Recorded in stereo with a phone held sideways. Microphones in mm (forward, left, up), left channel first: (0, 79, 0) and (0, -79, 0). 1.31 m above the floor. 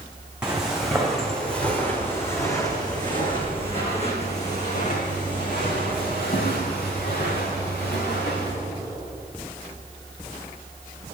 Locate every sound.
0.4 s footsteps: 5° right (ahead or behind), 3.5 m; by 8.5 s 75° left (ahead or behind), 5.5 m